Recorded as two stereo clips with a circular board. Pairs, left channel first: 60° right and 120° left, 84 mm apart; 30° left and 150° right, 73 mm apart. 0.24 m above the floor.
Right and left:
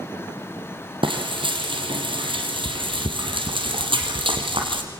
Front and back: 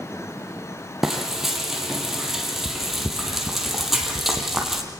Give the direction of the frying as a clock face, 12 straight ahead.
8 o'clock.